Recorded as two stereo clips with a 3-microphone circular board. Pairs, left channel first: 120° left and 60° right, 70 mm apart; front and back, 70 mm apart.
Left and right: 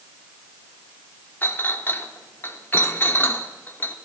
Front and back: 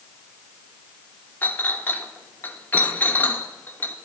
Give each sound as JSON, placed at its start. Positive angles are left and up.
{"t": 1.4, "sound": "a clink", "azimuth_deg": 60, "distance_m": 0.9}